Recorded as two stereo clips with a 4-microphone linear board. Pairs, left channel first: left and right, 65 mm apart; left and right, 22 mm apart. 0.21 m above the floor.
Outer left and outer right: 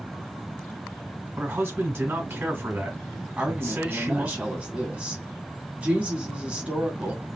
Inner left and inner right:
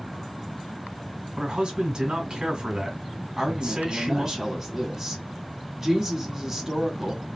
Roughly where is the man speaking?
Right.